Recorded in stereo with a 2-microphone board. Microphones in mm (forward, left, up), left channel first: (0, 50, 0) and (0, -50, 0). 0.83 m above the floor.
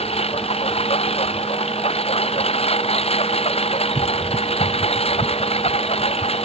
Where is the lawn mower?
85° left.